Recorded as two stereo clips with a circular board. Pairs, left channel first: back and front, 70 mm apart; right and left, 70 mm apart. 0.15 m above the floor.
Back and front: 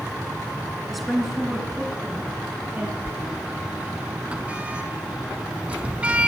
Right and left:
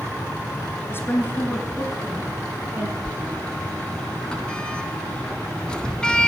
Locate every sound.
0.9 s a woman speaking: 95° right, 1.7 m; by 3.0 s 55° left, 1.9 m
3.0 s a sliding door: 40° right, 0.9 m